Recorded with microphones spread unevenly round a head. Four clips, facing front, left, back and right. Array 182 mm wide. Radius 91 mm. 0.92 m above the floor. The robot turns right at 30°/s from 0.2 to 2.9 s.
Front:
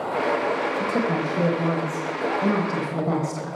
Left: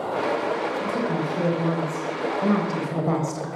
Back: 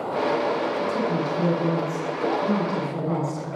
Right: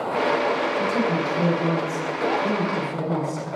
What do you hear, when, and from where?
0.8 s a woman speaking: 15° right, 4 m; by 3.5 s 45° left, 4 m